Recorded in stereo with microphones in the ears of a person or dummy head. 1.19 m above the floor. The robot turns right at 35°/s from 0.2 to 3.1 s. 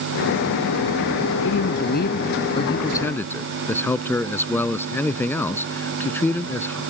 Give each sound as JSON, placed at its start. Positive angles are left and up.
{"t": 1.4, "sound": "a man speaking", "azimuth_deg": 110}